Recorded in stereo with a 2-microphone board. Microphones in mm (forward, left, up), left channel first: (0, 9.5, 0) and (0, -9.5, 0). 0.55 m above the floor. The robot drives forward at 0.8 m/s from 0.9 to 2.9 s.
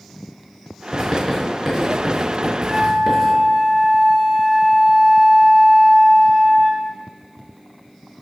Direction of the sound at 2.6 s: 30° right (ahead or behind).